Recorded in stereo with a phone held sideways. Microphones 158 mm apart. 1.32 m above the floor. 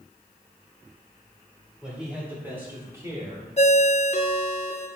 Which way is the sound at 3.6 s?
45° left (ahead or behind).